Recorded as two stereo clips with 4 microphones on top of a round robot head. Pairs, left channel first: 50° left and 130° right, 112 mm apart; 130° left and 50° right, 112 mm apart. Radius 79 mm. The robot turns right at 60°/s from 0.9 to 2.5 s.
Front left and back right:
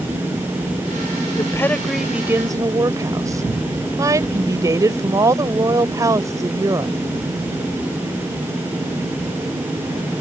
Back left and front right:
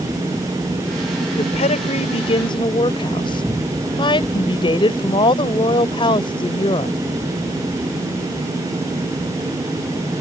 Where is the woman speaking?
105° left; by 7.0 s 170° left.